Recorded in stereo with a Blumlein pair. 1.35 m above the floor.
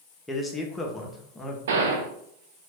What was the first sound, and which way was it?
A man speaking, 10° left.